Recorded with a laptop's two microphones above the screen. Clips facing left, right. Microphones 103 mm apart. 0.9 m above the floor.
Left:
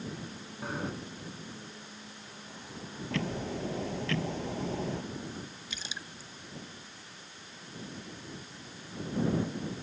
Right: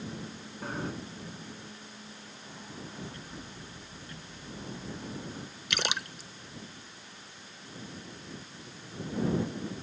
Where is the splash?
75° right (ahead or behind).